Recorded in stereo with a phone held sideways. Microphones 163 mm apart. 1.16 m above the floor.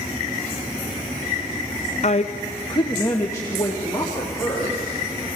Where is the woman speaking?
50° left (ahead or behind), 0.6 m; by 5.0 s 15° left (ahead or behind), 4.5 m.